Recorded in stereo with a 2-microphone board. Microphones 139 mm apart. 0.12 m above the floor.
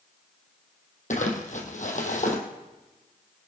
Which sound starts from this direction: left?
Crumpling, at 1.1 s.